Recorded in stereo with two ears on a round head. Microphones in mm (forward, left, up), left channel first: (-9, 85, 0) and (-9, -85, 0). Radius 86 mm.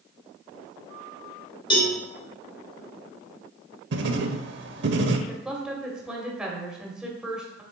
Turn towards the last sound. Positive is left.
turn(degrees=-5)  # may be behind; listen again after turning